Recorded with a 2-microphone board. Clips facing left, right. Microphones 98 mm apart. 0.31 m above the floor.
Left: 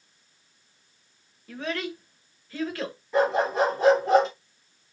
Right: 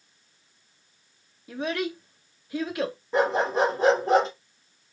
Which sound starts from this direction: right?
A dog barking, at 3.1 s.